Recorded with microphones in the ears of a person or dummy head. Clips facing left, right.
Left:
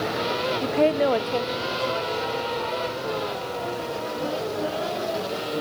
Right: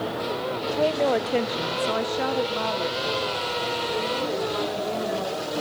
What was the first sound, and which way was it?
A woman speaking, 45° left (ahead or behind).